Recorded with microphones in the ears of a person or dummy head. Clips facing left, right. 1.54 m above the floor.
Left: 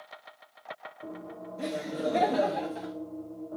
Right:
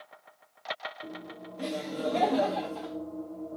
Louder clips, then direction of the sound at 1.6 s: Left 1 dB; 30° left (ahead or behind).